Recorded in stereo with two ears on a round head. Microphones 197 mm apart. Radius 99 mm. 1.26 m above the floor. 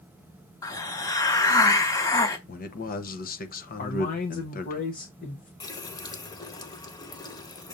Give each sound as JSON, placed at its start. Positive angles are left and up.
{"t": 0.6, "sound": "a hiss", "side_deg": 15, "distance_m": 0.9}
{"t": 2.5, "sound": "a man speaking", "side_deg": 40, "distance_m": 1.0}
{"t": 3.8, "sound": "a man speaking", "side_deg": 40, "distance_m": 1.1}
{"t": 5.6, "sound": "a running tap", "side_deg": 20, "distance_m": 0.8}